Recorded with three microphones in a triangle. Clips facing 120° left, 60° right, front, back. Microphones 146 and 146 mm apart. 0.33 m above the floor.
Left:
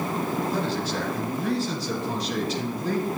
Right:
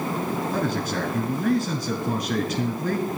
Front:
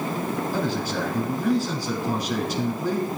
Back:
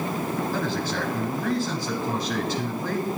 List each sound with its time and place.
0.5 s a man speaking: 80° right, 2.0 m